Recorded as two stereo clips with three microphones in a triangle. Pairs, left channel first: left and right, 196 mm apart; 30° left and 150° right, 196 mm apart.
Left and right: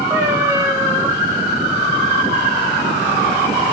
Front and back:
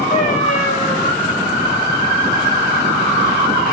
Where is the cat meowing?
15° right, 2 m.